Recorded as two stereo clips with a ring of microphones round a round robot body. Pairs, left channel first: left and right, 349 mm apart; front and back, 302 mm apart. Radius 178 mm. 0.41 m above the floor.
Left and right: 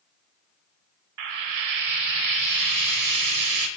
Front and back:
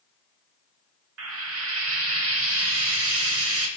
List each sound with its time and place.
1.2 s frying: 130° right, 0.7 m